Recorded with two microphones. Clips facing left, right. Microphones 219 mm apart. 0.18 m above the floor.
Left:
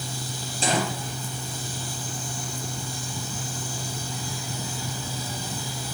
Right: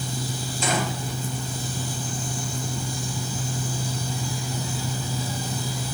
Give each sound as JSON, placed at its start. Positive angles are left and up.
{"t": 0.6, "sound": "a gunshot", "side_deg": 30, "distance_m": 5.5}